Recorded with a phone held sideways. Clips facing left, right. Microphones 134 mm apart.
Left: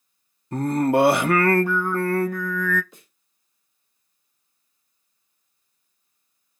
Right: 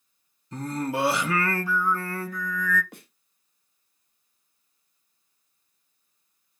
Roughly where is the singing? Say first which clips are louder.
Left 9 dB; left.